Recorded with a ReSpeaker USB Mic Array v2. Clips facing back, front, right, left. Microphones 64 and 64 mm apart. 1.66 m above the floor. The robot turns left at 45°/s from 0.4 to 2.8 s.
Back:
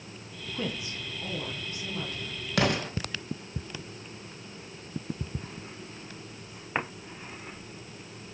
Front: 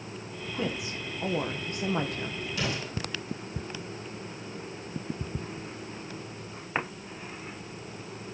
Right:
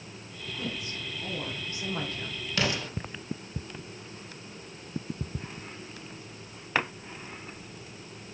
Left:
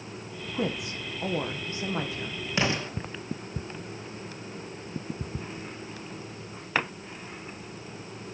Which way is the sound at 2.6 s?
160° left.